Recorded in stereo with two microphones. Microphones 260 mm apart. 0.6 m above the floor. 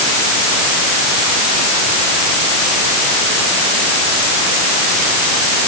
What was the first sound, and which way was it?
Only background noise.